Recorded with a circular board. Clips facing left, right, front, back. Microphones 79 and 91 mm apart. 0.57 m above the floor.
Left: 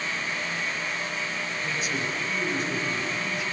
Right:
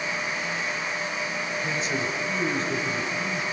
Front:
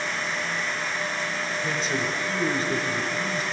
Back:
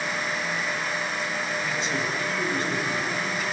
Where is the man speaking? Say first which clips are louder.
Right 1 dB, front 1 dB; 40° right, 2 m.